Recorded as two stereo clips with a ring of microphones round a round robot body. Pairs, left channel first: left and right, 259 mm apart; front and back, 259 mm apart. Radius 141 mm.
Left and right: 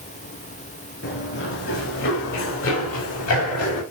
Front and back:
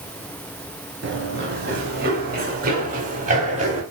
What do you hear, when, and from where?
1.0 s running footsteps: 135° left, 5.5 m; by 3.8 s 115° left, 6 m